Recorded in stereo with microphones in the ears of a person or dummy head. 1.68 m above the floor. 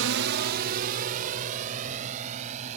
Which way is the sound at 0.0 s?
65° right (ahead or behind).